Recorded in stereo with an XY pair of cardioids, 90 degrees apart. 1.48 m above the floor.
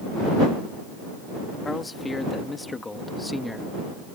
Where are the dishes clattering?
No dishes clattering in this recording.